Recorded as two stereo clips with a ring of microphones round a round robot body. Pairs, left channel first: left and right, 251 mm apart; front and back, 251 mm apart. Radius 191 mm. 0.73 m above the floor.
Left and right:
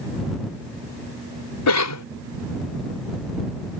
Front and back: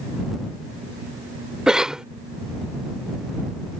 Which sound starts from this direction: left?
A cough, at 1.7 s.